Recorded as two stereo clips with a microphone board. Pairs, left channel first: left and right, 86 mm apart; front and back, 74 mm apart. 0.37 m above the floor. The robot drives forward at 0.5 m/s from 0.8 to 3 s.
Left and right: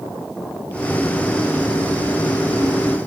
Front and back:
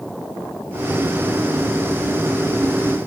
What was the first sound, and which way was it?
Only background noise.